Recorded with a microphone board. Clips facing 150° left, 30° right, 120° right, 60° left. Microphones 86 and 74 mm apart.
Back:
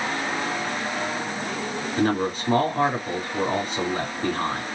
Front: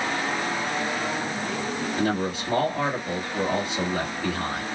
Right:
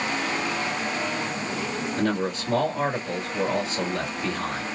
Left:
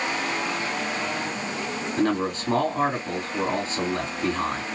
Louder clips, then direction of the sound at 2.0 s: Back 4 dB, left 3 dB; 105° left.